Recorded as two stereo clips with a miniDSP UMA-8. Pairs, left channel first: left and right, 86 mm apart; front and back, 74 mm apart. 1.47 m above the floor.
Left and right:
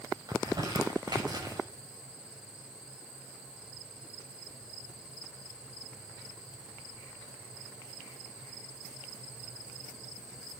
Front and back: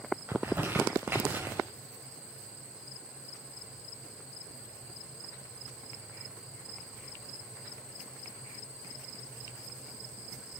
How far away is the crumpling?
About 6.5 m.